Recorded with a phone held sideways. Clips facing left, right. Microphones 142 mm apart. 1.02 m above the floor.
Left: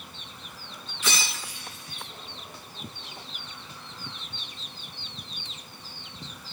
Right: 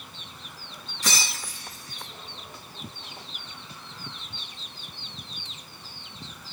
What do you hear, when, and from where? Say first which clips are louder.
1.0 s breaking glass: even; 40° right (ahead or behind), 8 m